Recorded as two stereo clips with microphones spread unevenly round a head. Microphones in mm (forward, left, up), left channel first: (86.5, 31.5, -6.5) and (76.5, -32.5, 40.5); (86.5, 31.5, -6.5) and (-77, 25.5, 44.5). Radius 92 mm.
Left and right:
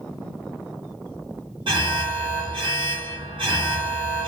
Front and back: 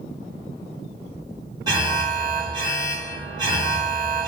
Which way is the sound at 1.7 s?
100° right.